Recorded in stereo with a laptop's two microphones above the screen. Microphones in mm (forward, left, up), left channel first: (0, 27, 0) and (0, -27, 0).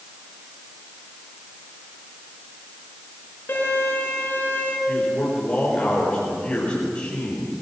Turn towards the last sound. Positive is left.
turn(degrees=30)  # may be behind; listen again after turning